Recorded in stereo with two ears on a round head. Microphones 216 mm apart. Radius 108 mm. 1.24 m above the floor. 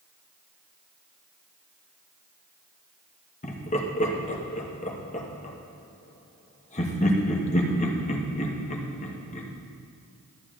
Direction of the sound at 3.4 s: 30° left (ahead or behind).